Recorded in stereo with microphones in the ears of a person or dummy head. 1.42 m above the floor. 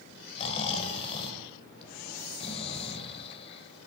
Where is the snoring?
35° left (ahead or behind), 3.5 m.